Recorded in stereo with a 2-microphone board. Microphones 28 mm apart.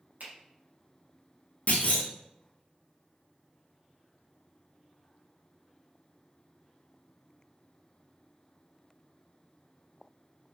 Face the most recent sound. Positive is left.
turn(degrees=70)  # may be behind; listen again after turning